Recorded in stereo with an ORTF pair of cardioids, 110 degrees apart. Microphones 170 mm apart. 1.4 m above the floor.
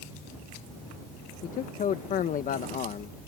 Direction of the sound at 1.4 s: 50° left.